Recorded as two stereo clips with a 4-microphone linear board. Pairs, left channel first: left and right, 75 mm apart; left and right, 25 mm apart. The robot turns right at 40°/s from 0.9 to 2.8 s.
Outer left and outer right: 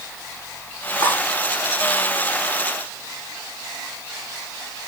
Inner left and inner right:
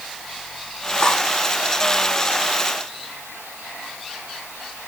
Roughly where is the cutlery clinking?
Left.